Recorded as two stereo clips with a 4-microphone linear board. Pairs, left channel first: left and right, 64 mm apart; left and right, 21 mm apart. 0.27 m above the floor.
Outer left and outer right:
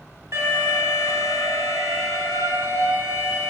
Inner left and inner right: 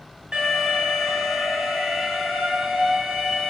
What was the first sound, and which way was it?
An alarm, 45° right (ahead or behind).